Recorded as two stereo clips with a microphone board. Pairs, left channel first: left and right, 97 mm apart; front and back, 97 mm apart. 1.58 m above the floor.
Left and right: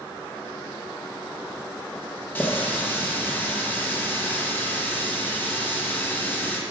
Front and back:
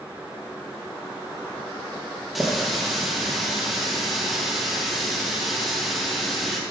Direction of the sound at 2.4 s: 95° left.